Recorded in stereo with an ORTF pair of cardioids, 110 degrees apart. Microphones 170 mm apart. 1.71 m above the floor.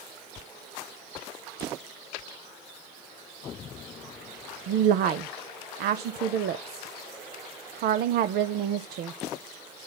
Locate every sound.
4.7 s a woman speaking: 65° right, 0.6 m